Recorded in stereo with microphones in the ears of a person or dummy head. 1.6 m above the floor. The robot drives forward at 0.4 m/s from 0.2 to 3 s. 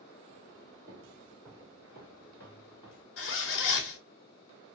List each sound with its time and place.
0.9 s footsteps: 10° right (ahead or behind), 1.6 m; by 3.1 s 25° left (ahead or behind), 2 m
3.2 s a zipper: 65° left (ahead or behind), 0.6 m